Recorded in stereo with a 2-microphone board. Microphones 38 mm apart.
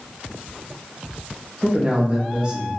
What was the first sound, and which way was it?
A man speaking, 25° right (ahead or behind).